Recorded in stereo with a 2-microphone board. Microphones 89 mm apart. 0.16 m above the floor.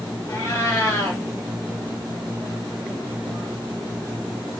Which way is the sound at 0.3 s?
40° left (ahead or behind).